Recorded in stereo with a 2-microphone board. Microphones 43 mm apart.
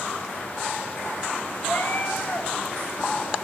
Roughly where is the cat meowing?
Left.